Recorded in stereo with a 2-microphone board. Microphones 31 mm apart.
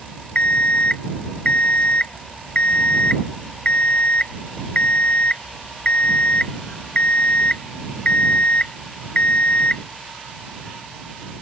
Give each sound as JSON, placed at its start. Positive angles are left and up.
{"t": 0.3, "sound": "an alarm clock", "side_deg": 35}